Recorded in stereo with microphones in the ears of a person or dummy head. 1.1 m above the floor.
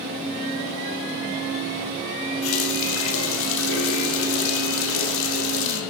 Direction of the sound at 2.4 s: 80° left.